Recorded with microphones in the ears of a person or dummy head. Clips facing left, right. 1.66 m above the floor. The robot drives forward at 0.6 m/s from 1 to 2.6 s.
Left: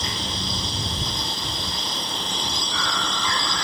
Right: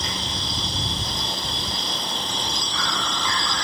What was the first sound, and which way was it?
An insect, 85° left.